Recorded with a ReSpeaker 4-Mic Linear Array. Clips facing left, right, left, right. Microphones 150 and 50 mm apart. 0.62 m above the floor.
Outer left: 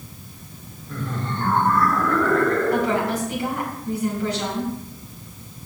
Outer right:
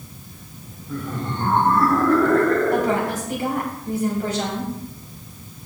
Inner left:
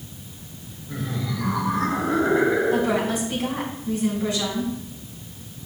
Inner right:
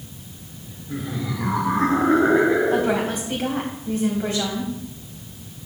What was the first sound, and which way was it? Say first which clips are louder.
Laughter: outer right 1 dB, inner right 1 dB; 10° right (ahead or behind).